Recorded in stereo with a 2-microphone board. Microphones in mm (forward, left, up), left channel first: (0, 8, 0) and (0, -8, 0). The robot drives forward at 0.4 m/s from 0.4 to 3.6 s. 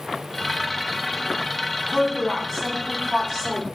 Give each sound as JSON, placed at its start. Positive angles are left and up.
{"t": 1.9, "sound": "a woman speaking", "side_deg": -15, "distance_m": 1.0}